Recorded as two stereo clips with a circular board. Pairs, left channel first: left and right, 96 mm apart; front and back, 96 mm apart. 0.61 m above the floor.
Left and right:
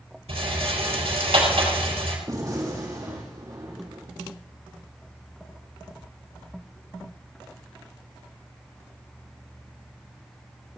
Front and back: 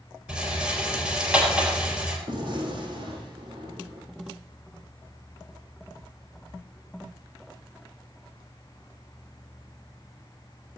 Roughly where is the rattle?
Right.